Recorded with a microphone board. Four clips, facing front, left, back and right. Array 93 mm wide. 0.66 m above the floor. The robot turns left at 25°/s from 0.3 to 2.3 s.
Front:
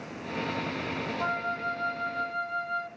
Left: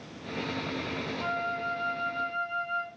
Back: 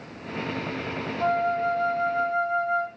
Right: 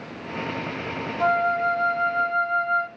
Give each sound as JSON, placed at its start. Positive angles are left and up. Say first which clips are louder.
{"t": 1.2, "sound": "a flute", "louder": "right 13 dB, back 9 dB", "azimuth_deg": -85, "distance_m": 0.7}